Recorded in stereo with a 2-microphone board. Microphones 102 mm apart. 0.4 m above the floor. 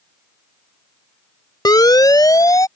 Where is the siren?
40° left (ahead or behind); by 2.7 s 35° left (ahead or behind).